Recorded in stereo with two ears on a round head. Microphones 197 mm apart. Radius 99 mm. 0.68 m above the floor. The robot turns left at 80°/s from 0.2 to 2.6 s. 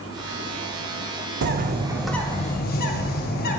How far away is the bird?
About 0.6 m.